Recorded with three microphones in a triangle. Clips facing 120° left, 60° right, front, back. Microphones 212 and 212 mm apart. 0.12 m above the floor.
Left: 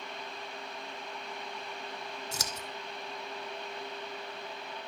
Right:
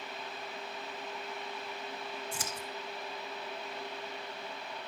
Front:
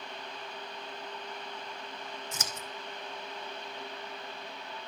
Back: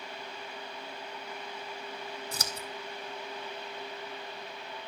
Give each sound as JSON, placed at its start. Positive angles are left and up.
{"t": 2.3, "sound": "scissors", "azimuth_deg": 125, "distance_m": 2.5}